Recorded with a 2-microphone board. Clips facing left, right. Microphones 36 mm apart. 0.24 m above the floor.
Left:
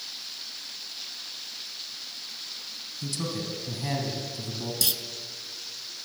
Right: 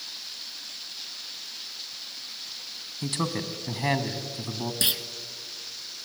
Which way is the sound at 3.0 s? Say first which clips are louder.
Right 3 dB; 45° right (ahead or behind).